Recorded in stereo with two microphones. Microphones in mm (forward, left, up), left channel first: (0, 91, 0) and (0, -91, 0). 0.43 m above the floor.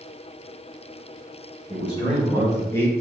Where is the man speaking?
25° left (ahead or behind), 1.3 m; by 2.9 s 10° left (ahead or behind), 0.8 m.